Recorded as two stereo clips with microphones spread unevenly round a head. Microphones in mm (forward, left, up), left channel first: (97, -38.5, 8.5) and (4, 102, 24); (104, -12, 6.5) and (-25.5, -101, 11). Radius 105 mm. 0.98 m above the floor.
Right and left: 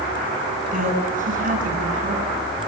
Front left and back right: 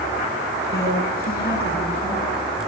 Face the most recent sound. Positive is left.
turn(degrees=85)